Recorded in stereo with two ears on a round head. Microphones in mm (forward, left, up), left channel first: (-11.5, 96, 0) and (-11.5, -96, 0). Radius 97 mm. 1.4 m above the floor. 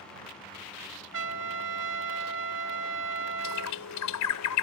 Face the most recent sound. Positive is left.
turn(degrees=80)